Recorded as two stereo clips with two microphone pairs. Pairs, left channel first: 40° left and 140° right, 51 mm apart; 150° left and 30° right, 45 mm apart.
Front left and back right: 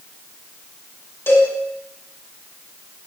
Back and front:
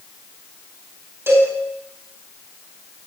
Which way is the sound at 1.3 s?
5° left.